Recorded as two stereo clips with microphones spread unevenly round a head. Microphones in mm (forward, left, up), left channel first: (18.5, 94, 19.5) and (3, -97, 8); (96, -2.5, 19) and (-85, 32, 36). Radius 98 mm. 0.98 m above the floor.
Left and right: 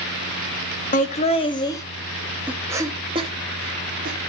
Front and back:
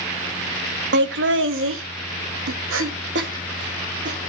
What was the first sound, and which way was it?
Laughter, 140° left.